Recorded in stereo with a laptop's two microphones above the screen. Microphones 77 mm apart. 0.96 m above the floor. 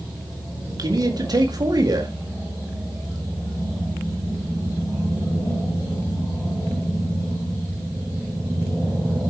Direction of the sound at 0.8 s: 60° right (ahead or behind).